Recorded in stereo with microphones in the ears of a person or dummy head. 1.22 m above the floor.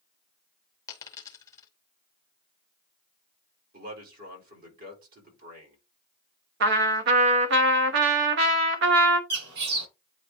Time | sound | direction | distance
0.9 | a dropped coin | 20° left (ahead or behind) | 0.8 m
3.7 | a man speaking | 60° right (ahead or behind) | 4 m
6.6 | a trumpet | 65° right (ahead or behind) | 1.2 m
9.3 | a bird | 65° right (ahead or behind) | 7 m